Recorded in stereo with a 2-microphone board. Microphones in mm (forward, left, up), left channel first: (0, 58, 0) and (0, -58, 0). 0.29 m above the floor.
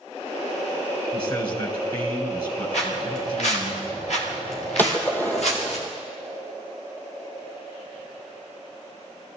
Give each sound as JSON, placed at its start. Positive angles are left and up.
{"t": 1.1, "sound": "a man speaking", "side_deg": 35, "distance_m": 3.5}
{"t": 2.7, "sound": "footsteps", "side_deg": 65, "distance_m": 5.5}
{"t": 4.8, "sound": "a gunshot", "side_deg": 15, "distance_m": 1.9}